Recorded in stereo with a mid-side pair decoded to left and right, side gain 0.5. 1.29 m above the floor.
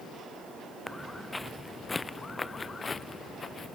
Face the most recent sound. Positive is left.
turn(degrees=35)